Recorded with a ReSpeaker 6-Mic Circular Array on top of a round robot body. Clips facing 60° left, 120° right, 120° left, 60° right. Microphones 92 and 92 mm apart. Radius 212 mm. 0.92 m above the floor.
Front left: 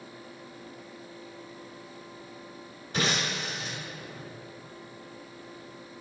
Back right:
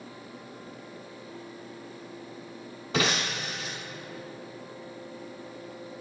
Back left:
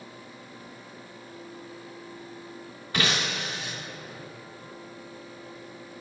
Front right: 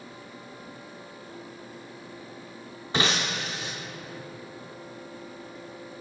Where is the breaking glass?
130° right, 0.7 m.